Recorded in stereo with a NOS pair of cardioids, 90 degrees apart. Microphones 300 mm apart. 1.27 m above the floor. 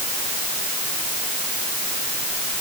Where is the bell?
No bell in this recording.